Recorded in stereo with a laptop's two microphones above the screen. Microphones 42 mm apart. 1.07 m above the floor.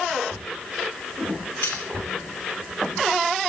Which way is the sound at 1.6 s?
85° left.